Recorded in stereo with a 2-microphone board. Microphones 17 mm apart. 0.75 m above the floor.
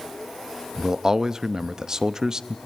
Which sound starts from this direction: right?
A man speaking, at 0.8 s.